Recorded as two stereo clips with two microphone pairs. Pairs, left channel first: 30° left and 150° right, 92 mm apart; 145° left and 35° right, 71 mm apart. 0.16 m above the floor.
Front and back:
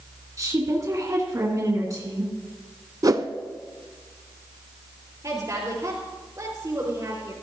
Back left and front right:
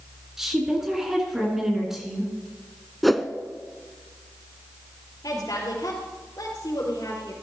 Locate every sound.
0.4 s a woman speaking: 115° right, 2 m
3.0 s a whoosh: 130° right, 0.6 m
5.2 s a woman speaking: 160° left, 3.5 m